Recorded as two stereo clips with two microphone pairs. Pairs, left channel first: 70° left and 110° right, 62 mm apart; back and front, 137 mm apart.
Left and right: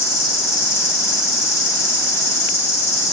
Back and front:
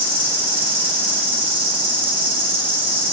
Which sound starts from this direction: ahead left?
An insect, at 0.0 s.